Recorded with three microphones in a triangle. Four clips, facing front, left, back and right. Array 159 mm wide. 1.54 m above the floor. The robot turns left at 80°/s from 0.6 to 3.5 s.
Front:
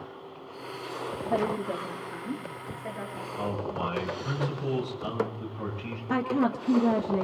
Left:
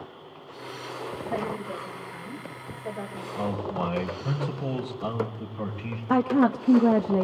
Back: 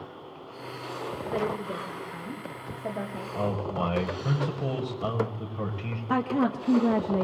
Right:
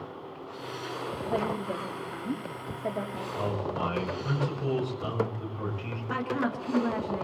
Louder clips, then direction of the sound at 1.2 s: Right 1 dB, front 2 dB; 20° left.